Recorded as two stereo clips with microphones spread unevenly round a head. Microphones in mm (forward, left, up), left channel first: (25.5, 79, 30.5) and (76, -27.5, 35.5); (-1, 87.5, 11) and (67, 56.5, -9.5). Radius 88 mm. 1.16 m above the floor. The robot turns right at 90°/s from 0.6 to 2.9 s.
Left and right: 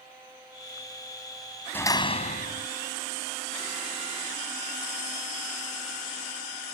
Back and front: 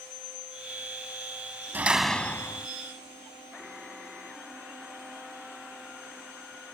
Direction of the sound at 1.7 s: 40° left.